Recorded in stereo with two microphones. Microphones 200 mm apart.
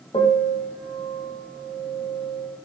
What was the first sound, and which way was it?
A piano, 25° left (ahead or behind).